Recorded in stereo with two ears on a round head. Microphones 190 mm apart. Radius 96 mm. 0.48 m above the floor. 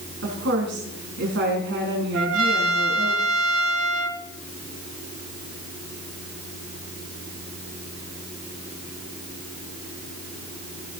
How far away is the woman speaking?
About 5 m.